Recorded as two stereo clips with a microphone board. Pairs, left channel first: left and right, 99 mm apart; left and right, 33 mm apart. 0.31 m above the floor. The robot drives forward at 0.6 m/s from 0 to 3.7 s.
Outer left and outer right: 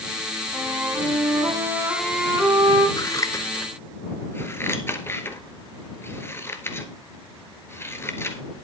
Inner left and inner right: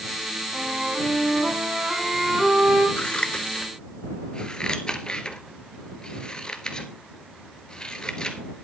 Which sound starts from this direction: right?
A flute, at 0.5 s.